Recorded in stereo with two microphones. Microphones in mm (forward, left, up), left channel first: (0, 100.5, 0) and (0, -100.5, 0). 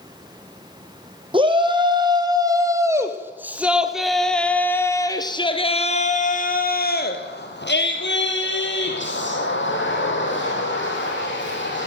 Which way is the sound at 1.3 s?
25° right (ahead or behind).